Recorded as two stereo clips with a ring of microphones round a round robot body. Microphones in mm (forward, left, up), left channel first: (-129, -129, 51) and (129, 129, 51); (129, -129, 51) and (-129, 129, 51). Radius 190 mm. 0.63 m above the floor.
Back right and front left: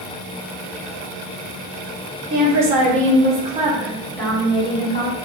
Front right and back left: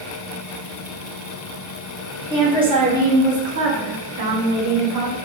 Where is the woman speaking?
55° left, 1.2 m; by 5.2 s 165° left, 1.3 m.